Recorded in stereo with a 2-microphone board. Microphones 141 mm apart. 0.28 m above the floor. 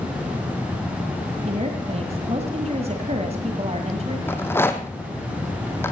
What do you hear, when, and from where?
1.4 s a woman speaking: 50° right (ahead or behind), 1.9 m
4.3 s a rattle: 15° left (ahead or behind), 1.9 m